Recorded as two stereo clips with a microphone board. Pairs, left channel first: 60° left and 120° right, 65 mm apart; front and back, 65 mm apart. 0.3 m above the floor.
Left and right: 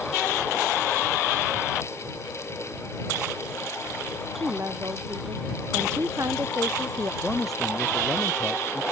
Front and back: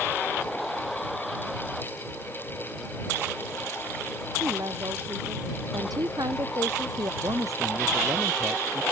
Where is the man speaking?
145° left.